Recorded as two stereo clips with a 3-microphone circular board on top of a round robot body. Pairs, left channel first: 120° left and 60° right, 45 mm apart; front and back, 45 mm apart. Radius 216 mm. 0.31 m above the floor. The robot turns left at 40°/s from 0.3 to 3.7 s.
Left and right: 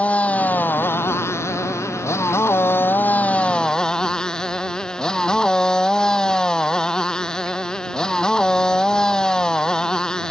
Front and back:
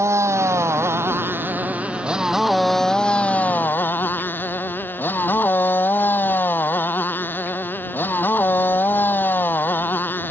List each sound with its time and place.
0.0 s a motorcycle: straight behind; by 10.3 s 45° left